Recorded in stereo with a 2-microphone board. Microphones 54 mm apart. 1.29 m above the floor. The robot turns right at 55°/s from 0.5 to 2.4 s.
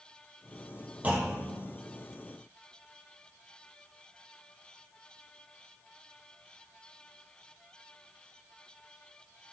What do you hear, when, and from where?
1.0 s a clunk: 145° right, 0.7 m; by 1.6 s 115° right, 0.7 m